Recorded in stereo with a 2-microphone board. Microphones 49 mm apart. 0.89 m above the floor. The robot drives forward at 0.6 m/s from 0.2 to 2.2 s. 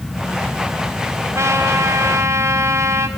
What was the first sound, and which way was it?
A trumpet, 70° right (ahead or behind).